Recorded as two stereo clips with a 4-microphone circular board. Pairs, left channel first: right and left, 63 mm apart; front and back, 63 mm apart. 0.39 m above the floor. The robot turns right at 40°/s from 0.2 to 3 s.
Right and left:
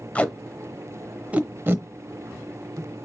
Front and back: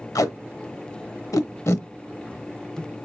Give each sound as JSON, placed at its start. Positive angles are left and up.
{"t": 0.1, "sound": "tape being pulled", "azimuth_deg": -20, "distance_m": 0.7}